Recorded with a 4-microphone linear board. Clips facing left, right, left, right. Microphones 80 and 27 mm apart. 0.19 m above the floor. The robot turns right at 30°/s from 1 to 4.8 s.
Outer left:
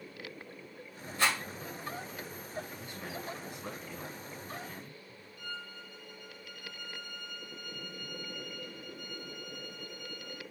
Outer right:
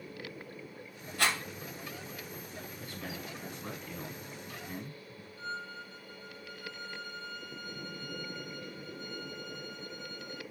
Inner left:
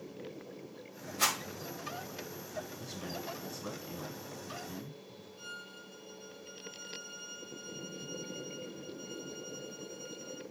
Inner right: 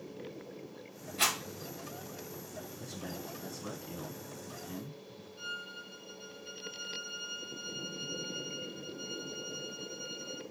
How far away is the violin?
About 0.7 m.